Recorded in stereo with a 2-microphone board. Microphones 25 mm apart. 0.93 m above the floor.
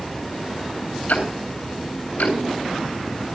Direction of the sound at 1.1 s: 70° left (ahead or behind).